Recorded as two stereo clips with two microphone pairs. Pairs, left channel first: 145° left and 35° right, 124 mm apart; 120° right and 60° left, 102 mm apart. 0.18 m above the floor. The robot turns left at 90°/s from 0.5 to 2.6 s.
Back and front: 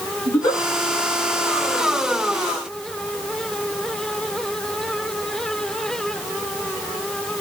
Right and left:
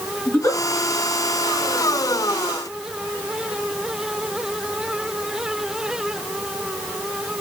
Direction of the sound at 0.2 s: Straight behind.